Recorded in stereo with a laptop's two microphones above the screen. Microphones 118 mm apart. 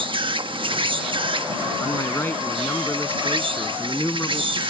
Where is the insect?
45° right (ahead or behind).